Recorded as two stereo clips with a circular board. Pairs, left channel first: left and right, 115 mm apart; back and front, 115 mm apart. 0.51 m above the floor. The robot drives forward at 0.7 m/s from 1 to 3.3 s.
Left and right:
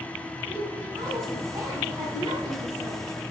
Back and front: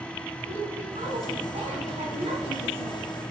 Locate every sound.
0.5 s a woman speaking: 30° right, 4 m; by 3.1 s 40° right, 3 m